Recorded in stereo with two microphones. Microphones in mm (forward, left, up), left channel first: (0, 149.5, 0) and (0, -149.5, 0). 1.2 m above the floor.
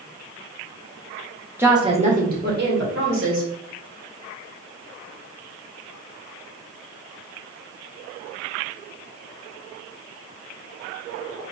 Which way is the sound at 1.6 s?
5° right (ahead or behind).